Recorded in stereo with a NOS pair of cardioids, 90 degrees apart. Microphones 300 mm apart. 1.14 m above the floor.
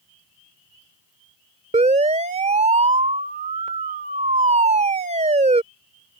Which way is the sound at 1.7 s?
20° right.